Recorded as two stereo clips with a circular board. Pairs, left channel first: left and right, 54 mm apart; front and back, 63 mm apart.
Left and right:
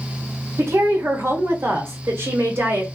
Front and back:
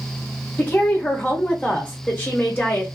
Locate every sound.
0.6 s a woman speaking: 65° right, 1.2 m